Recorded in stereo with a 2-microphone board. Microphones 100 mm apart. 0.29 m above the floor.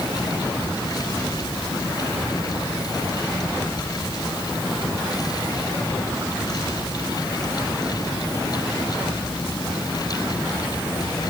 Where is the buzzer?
No buzzer in this recording.